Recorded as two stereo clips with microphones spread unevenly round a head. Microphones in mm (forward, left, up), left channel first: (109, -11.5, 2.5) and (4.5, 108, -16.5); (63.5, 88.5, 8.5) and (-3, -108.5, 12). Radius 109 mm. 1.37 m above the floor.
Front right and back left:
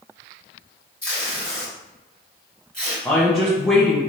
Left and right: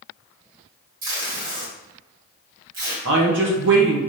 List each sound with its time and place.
1.0 s tape being pulled: 125° right, 1.7 m
3.0 s a woman speaking: 140° right, 0.9 m